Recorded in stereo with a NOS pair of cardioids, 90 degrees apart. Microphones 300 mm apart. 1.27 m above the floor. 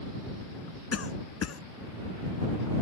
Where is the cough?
50° left.